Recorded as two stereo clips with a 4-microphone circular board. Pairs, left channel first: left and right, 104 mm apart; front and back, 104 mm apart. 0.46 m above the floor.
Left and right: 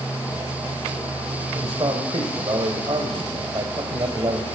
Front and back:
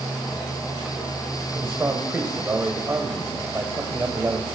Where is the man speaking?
120° right, 1.8 m.